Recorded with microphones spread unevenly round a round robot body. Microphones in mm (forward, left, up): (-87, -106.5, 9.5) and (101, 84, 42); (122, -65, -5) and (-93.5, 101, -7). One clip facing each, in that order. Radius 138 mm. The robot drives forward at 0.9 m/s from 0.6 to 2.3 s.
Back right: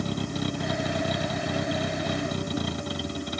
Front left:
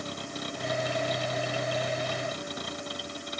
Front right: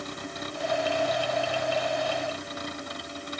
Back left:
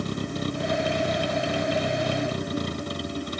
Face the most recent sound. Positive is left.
turn(degrees=-160)